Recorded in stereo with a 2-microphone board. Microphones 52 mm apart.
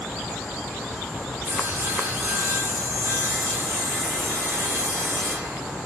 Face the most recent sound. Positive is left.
turn(degrees=-65)  # may be behind; listen again after turning